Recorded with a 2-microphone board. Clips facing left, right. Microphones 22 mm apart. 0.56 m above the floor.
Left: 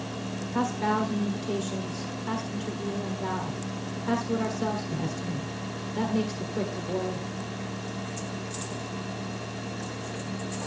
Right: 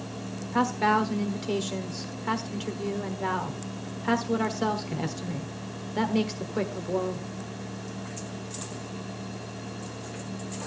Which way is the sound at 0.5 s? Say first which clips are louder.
Right 3 dB; 35° right (ahead or behind).